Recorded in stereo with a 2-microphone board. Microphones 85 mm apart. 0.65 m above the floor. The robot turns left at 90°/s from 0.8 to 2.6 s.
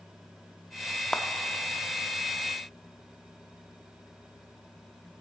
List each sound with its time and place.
1.1 s a clap: 5° left (ahead or behind), 0.6 m; by 1.2 s 15° left (ahead or behind), 0.6 m